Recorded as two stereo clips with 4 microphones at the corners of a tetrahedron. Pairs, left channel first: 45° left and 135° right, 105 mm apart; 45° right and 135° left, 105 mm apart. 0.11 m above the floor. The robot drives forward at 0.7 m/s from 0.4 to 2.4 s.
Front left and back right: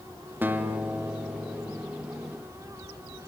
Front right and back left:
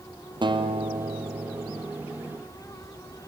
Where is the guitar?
155° left, 1.9 m; by 1.8 s 165° left, 2.5 m.